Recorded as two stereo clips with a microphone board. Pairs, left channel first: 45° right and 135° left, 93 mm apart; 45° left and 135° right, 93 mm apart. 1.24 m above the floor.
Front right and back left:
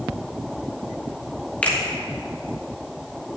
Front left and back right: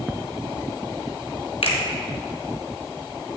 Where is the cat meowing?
I don't hear a cat meowing.